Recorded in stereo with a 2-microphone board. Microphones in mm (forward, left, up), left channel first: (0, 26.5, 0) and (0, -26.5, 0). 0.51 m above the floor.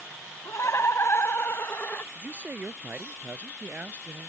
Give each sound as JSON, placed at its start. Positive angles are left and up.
{"t": 0.5, "sound": "laughter", "side_deg": 60}
{"t": 2.1, "sound": "a man speaking", "side_deg": -30}